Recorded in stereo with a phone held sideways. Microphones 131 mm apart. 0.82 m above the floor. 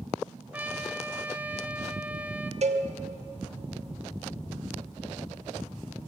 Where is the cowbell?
55° right (ahead or behind), 1.4 m.